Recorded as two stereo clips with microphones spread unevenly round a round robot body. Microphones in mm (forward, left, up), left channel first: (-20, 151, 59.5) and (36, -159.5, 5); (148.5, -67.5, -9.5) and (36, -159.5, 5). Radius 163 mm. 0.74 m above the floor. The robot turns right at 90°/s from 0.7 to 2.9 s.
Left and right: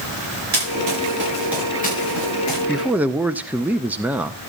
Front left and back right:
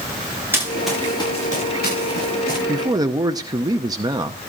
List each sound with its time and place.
0.5 s running footsteps: 65° right, 8.5 m; by 2.6 s 100° left, 7.5 m
2.7 s a man speaking: 140° right, 0.7 m; by 4.4 s 120° right, 0.7 m